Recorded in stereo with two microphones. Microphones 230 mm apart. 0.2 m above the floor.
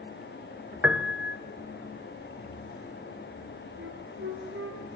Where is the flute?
60° right (ahead or behind), 4 m.